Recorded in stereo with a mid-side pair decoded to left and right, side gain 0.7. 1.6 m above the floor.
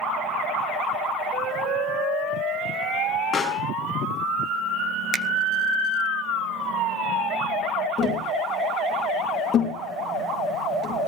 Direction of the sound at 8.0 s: 35° left.